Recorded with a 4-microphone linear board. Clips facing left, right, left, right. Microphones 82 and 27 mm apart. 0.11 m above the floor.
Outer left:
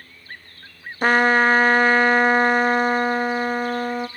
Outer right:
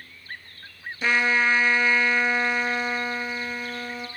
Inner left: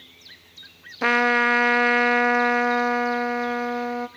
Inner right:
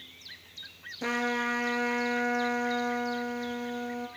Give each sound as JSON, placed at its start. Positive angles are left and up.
{"t": 1.0, "sound": "a trumpet", "side_deg": 50, "distance_m": 0.5}